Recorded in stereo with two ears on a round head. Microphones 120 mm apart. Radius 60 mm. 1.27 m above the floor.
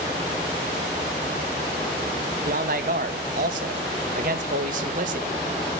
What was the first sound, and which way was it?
A man speaking, 65° right (ahead or behind).